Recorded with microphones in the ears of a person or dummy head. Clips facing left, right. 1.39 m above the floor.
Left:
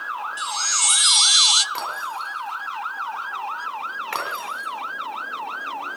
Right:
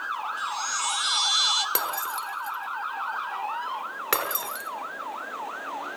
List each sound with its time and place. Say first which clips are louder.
0.4 s a chime: left 2 dB; 70° left (ahead or behind), 1.0 m
1.8 s breaking glass: left 1 dB; 80° right, 6 m